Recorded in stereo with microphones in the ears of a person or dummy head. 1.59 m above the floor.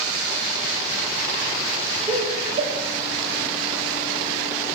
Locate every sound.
2.1 s laughter: 25° right (ahead or behind), 7 m